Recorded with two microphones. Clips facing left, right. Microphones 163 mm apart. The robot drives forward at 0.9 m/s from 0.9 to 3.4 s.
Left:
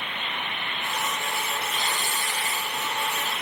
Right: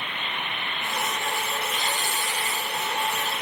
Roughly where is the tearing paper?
Left.